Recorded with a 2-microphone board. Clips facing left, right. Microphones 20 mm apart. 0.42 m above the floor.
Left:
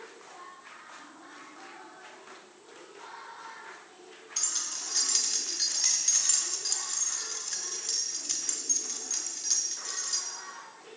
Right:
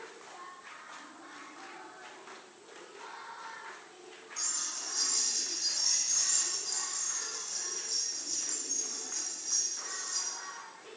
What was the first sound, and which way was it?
Keys jangling, 60° left (ahead or behind).